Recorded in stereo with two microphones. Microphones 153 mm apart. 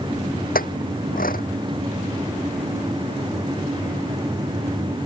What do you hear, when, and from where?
0.6 s a clink: 85° left